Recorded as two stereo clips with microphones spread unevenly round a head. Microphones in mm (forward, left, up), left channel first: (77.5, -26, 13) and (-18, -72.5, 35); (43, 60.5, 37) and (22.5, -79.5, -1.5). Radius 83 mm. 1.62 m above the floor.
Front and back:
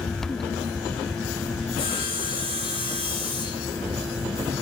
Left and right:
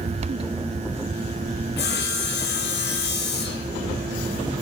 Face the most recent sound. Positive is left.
turn(degrees=85)